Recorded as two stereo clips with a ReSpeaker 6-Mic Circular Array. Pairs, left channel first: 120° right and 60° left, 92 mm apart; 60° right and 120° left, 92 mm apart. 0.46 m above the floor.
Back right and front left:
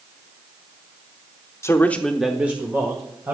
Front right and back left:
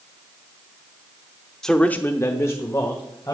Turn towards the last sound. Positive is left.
turn(degrees=0)